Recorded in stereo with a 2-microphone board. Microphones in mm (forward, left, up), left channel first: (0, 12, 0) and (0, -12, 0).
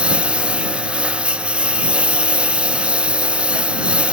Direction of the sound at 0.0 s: 60° right (ahead or behind).